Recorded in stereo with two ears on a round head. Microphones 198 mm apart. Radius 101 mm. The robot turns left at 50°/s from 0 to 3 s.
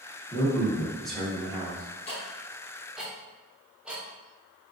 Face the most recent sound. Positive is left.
turn(degrees=-5)  # may be behind; listen again after turning